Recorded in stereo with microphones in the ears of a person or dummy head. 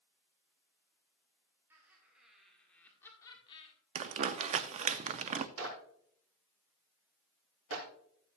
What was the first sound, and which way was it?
Laughter, 15° right (ahead or behind).